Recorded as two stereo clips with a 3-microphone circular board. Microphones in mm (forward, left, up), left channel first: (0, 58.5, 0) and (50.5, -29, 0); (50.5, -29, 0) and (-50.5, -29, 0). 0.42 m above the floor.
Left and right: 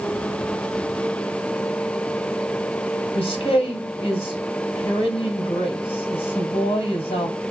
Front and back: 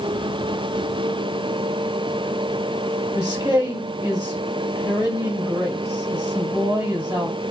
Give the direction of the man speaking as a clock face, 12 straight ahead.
7 o'clock.